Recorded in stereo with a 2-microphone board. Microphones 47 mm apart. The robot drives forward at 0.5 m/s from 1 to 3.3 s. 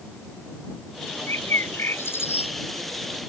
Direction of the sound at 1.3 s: 65° left (ahead or behind).